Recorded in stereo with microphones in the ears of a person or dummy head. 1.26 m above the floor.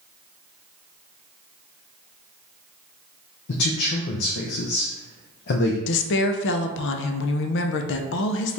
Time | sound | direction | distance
3.5 | a man speaking | 55° left (ahead or behind) | 0.5 m
5.9 | a woman speaking | 60° left (ahead or behind) | 0.5 m